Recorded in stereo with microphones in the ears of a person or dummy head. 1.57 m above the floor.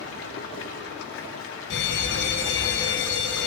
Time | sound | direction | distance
0.0 | running water | 70° left (ahead or behind) | 1.9 m
1.7 | an alarm | 65° left (ahead or behind) | 2.5 m